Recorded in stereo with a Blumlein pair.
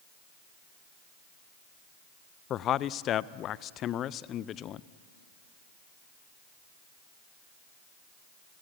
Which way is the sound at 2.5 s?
30° left.